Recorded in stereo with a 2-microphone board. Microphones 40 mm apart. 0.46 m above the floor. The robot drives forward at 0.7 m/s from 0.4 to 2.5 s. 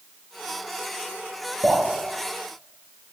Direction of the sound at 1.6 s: 30° right (ahead or behind).